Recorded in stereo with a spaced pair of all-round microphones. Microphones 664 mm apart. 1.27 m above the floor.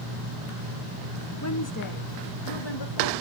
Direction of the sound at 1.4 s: 25° left (ahead or behind).